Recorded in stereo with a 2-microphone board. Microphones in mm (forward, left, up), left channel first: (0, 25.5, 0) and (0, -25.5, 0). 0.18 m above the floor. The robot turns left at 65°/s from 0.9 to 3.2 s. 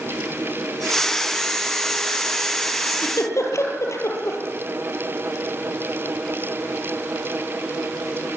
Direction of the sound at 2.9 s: 60° left (ahead or behind).